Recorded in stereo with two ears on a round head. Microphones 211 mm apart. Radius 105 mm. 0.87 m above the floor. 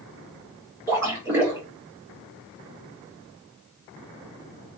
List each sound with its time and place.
0.9 s a splash: 10° right (ahead or behind), 1.6 m